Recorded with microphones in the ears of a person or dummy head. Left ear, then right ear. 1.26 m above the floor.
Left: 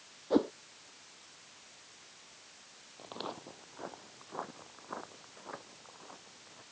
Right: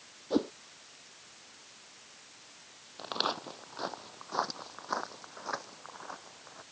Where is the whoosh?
15° left (ahead or behind).